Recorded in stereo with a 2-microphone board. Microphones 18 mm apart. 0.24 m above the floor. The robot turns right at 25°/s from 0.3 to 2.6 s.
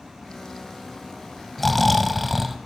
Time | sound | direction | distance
1.6 | snoring | 5° left (ahead or behind) | 0.9 m